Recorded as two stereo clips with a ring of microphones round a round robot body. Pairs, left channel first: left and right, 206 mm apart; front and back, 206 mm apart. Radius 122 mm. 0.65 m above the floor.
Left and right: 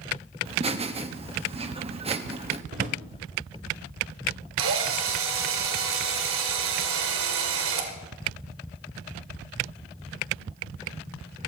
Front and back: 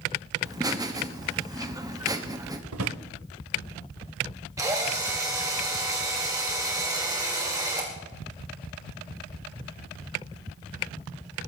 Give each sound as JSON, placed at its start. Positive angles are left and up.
{"t": 0.5, "sound": "laughter", "azimuth_deg": -120, "distance_m": 1.1}
{"t": 2.7, "sound": "a drawer", "azimuth_deg": -150, "distance_m": 0.9}
{"t": 4.6, "sound": "a drill", "azimuth_deg": -105, "distance_m": 2.0}